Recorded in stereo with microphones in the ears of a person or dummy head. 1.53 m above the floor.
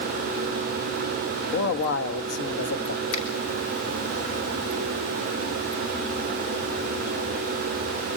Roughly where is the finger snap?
Left.